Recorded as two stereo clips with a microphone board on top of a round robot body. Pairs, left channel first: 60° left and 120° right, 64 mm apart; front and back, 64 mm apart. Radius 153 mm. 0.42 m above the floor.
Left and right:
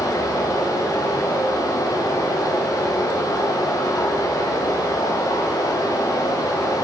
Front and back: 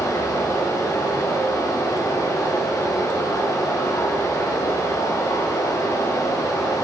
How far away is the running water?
About 2.5 m.